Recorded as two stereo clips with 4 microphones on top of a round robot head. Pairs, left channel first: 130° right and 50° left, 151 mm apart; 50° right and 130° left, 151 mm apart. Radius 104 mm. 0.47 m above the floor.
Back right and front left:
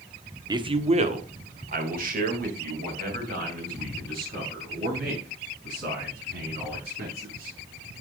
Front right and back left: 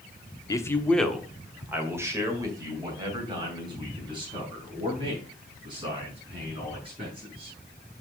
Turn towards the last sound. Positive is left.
turn(degrees=75)